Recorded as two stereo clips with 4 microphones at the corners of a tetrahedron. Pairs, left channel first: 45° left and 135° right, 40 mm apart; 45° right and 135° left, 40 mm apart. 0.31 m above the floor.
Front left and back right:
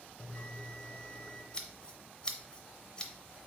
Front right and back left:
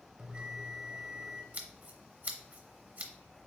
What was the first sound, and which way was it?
A bell, 75° left.